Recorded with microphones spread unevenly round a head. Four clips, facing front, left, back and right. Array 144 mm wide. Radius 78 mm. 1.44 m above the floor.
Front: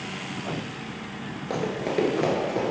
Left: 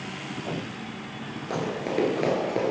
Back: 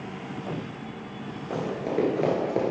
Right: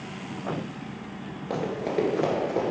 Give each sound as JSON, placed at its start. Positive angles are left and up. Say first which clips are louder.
{"t": 1.5, "sound": "running footsteps", "louder": "right 1 dB, front 2 dB", "azimuth_deg": -25, "distance_m": 1.4}